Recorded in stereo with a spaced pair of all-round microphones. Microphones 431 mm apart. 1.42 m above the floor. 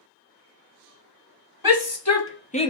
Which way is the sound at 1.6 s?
55° left (ahead or behind).